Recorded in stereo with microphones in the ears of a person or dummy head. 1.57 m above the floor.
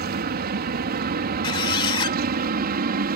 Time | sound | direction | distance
0.0 | an aircraft | 55° right (ahead or behind) | ?
1.4 | a squeak | 25° left (ahead or behind) | ?